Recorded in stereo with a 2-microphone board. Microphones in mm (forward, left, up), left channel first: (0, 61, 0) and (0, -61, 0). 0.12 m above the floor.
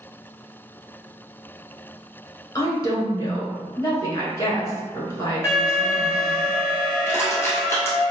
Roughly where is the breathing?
No breathing in this recording.